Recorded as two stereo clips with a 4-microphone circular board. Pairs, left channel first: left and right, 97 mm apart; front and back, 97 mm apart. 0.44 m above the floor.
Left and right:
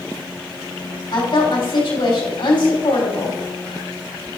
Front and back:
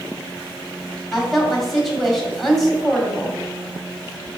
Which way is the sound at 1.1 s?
90° left.